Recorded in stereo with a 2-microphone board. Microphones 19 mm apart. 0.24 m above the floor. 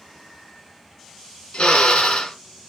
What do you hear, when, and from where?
1.5 s a drill: 60° left (ahead or behind), 1.8 m